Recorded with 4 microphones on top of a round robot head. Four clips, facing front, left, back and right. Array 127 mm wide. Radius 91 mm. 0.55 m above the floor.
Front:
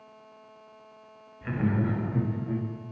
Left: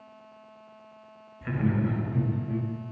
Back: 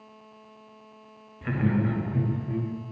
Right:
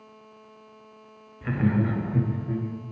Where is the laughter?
145° right, 1.2 m; by 2.7 s 45° right, 1.7 m.